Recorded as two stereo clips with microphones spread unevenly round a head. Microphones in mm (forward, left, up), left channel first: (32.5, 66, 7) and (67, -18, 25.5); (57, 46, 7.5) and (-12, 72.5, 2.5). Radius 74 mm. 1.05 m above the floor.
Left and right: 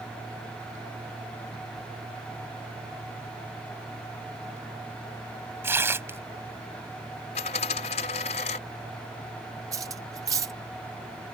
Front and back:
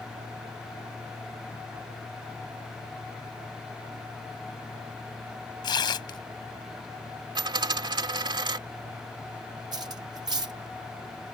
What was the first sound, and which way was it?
Tearing paper, 5° right.